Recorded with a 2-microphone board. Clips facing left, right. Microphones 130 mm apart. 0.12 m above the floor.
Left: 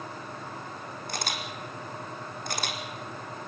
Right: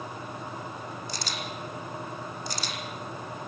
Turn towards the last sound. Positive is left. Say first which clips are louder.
# left 4 dB
turn(degrees=55)  # may be behind; listen again after turning